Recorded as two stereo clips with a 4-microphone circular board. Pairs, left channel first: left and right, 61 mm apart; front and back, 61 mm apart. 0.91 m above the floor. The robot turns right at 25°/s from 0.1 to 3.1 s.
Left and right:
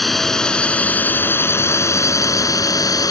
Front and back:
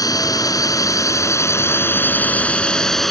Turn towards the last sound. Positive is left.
turn(degrees=90)